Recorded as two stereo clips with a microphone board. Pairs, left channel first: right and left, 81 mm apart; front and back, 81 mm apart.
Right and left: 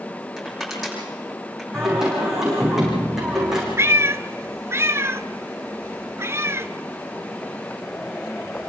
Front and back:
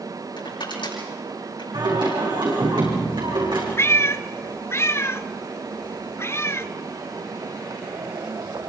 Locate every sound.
0.4 s crushing: straight ahead, 8 m
1.7 s singing: 175° left, 7.5 m
3.8 s a cat meowing: 45° left, 0.8 m